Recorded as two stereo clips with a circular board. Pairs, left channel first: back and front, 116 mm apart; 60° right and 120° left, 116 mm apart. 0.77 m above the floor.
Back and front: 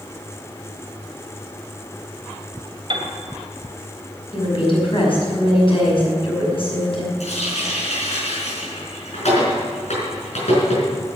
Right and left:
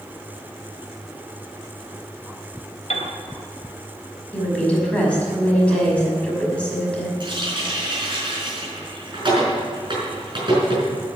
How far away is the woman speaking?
About 5.5 m.